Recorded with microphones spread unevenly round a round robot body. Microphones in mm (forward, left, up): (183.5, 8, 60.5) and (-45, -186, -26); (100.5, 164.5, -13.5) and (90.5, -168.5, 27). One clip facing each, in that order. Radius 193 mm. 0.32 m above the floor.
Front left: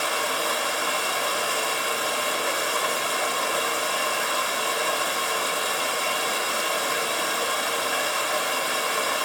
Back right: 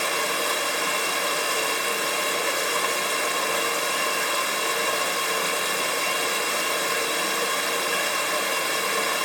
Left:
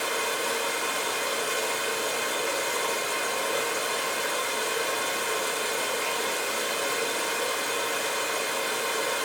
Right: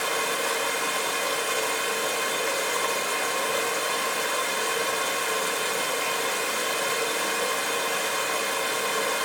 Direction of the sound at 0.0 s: 100° right.